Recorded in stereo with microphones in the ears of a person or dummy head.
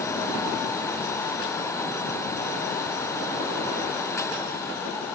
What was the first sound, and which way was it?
Only background noise.